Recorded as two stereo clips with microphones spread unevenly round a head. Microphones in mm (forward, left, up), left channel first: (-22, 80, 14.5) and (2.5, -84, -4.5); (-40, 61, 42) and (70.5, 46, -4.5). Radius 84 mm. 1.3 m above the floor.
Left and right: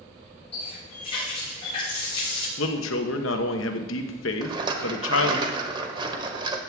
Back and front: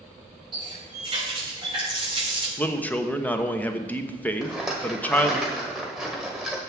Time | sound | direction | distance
0.5 | a running tap | 40° left | 5.5 m
2.6 | a man speaking | 100° left | 1.2 m
4.4 | a rattle | 135° right | 1.2 m